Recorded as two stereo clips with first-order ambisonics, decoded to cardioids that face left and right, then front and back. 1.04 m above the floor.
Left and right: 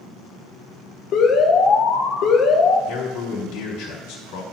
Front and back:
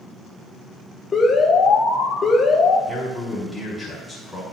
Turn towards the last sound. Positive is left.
turn(degrees=95)